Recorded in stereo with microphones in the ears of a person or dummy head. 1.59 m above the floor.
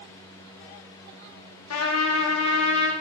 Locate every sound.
1.7 s a trumpet: 80° left, 0.6 m